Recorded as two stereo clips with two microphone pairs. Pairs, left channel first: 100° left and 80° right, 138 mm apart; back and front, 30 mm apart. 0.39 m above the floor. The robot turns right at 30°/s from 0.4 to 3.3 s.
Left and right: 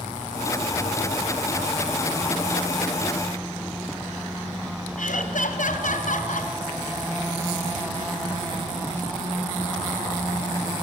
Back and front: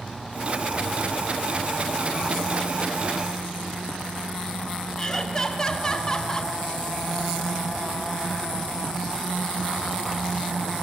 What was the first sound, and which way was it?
Laughter, 110° left.